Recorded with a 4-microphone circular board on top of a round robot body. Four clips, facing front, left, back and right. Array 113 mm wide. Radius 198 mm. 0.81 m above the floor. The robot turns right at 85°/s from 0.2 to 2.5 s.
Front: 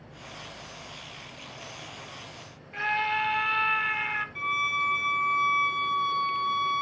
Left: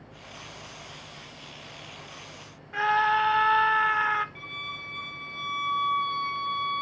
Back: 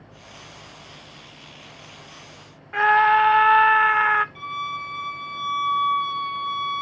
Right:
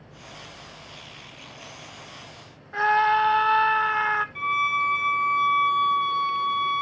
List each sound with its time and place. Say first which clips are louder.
2.7 s a scream: right 3 dB, back 12 dB; 160° right, 1.0 m
4.3 s a violin: right 16 dB, front 1 dB; 70° right, 1.0 m